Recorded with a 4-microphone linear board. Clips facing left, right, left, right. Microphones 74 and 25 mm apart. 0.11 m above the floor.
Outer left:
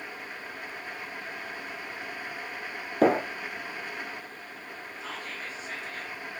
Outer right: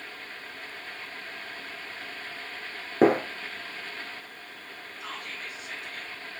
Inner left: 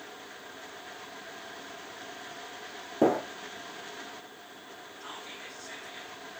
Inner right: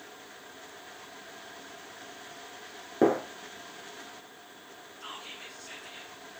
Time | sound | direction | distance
3.0 | a gunshot | 35° right (ahead or behind) | 1.3 m
5.0 | whispering | 60° right (ahead or behind) | 3 m